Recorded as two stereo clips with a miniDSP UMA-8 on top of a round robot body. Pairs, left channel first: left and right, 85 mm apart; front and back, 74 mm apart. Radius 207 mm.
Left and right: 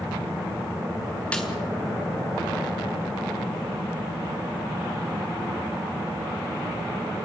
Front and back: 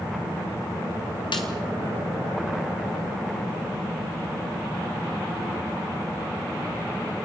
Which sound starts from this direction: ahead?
A snare drum, at 1.3 s.